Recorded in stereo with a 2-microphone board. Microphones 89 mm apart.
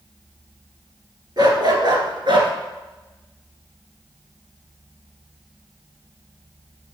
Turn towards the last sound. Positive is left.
turn(degrees=-65)  # may be behind; listen again after turning